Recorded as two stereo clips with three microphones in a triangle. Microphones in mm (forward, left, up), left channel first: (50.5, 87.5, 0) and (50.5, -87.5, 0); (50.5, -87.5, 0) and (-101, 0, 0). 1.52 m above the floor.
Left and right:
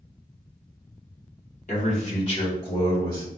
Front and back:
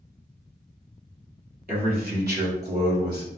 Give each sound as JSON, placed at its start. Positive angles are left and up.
{"t": 1.7, "sound": "a man speaking", "azimuth_deg": 125, "distance_m": 1.5}